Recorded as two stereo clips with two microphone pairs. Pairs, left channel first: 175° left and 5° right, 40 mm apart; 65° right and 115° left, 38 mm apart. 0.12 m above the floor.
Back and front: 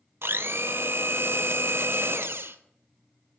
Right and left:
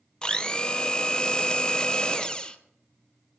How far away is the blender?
About 0.7 m.